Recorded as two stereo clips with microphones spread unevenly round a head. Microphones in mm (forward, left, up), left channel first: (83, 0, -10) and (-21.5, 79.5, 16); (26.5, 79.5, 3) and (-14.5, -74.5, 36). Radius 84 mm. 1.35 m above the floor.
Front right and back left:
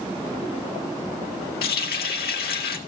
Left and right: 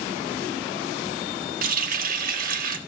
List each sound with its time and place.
1.6 s a running tap: 75° right, 1.6 m